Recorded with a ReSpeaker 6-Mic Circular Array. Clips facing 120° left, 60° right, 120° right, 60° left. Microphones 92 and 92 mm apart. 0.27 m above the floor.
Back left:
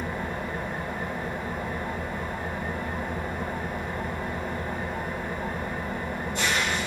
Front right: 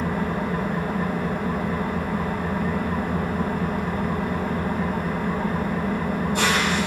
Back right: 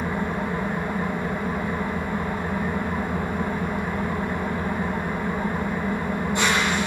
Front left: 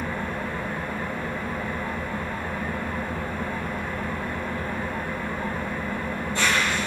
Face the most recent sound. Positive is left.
turn(degrees=-50)